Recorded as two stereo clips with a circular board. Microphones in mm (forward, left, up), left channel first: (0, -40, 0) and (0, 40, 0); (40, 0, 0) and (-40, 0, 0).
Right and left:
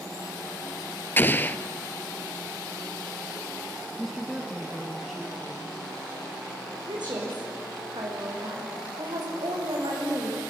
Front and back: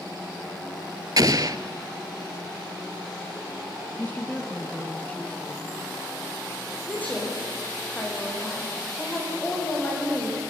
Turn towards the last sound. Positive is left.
turn(degrees=70)